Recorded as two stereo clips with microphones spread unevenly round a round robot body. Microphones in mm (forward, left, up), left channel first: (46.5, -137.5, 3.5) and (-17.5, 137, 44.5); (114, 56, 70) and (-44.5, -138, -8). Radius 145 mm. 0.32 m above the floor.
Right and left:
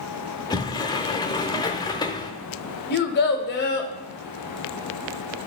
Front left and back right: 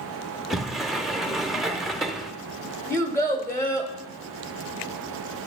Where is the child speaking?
40° right, 0.8 m.